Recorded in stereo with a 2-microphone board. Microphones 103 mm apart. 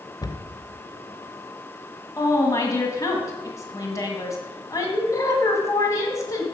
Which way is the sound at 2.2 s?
35° left (ahead or behind).